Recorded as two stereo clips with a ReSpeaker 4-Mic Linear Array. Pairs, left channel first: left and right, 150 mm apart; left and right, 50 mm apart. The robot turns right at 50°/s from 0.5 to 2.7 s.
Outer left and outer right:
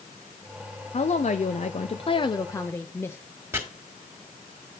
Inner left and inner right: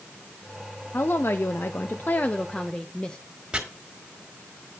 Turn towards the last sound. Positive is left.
turn(degrees=-20)  # may be behind; listen again after turning